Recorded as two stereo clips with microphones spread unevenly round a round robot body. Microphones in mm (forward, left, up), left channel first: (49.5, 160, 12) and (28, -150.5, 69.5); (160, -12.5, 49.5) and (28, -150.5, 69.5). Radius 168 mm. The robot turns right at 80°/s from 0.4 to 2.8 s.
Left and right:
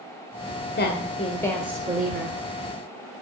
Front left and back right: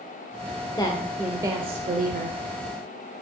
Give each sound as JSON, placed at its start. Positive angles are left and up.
{"t": 0.8, "sound": "a woman speaking", "azimuth_deg": 95, "distance_m": 1.3}